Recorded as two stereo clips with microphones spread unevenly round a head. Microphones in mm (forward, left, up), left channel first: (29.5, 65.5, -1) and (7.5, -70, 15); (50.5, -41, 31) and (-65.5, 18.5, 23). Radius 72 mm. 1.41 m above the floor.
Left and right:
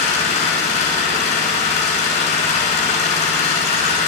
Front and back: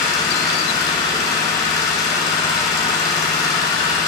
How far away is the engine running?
About 7 m.